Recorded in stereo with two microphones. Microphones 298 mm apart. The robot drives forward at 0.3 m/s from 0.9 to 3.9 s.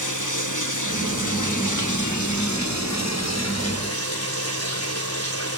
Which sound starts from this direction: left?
Running water, at 0.0 s.